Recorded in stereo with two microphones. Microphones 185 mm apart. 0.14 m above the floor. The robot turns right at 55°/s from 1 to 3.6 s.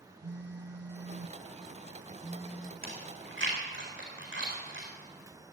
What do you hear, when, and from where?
0.2 s a phone buzzing: 95° right, 0.6 m; by 2.7 s 5° left, 0.6 m
2.8 s chewing: 55° right (ahead or behind), 4.5 m; by 4.9 s 80° right, 4.5 m